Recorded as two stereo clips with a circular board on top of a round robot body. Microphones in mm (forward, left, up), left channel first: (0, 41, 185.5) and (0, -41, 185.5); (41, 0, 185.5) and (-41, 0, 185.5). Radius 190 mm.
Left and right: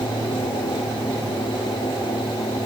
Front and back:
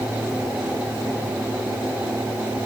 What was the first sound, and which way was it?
Only background noise.